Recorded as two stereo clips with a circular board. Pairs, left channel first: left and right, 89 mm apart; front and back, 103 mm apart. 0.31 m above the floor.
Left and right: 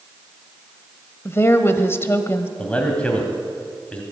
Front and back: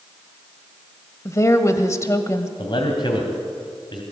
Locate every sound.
1.2 s a woman speaking: 45° left, 1.2 m
2.6 s a man speaking: 15° left, 2.5 m